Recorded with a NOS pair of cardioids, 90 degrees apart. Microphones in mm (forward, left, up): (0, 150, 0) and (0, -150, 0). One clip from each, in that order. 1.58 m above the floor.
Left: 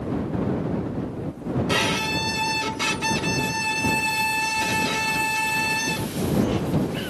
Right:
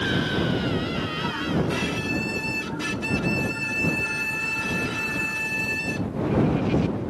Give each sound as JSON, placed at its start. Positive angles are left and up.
{"t": 1.7, "sound": "a violin", "azimuth_deg": 60}